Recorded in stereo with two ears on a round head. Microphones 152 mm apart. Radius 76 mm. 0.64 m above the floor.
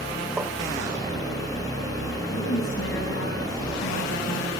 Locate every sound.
0.4 s tapping: 10° right (ahead or behind), 1.1 m
2.3 s a woman speaking: 80° left, 4.5 m